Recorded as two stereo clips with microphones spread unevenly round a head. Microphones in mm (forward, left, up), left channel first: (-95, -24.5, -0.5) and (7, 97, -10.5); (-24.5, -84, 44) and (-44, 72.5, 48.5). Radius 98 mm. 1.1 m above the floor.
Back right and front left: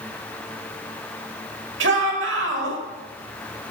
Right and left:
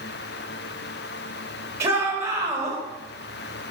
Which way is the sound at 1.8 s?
20° left.